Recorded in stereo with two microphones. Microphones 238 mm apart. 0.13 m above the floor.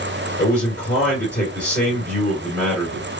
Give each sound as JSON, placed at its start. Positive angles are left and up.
{"t": 0.4, "sound": "a man speaking", "side_deg": 10, "distance_m": 2.0}